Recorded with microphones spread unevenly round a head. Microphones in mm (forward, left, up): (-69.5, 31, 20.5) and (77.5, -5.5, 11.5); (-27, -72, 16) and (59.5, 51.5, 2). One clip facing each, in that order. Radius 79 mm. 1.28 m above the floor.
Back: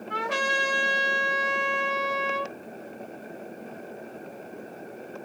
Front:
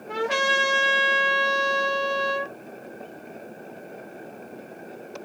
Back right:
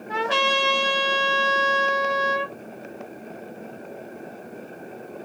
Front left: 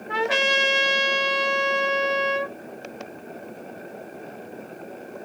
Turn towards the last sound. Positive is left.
turn(degrees=-20)